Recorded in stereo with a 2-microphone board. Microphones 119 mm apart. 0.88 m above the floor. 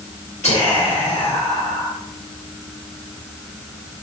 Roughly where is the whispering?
Left.